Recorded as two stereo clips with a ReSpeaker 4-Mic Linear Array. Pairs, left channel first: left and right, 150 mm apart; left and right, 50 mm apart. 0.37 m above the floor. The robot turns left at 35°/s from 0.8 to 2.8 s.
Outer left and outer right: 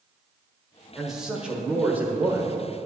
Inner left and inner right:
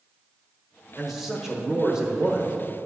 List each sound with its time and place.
0.9 s a man speaking: centre (ahead or behind), 1.2 m; by 2.5 s 15° right (ahead or behind), 1.2 m